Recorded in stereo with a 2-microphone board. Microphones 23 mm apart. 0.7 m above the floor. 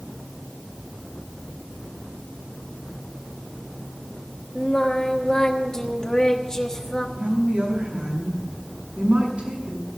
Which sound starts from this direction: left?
Singing, at 4.5 s.